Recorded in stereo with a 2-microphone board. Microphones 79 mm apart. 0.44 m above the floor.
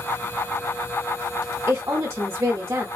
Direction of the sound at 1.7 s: 35° right (ahead or behind).